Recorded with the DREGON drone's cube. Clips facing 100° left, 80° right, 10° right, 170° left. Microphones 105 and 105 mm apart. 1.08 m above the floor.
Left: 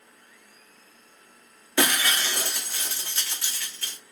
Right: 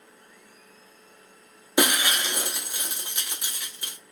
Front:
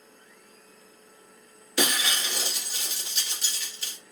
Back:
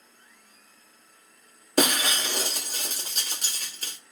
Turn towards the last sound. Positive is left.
turn(degrees=-150)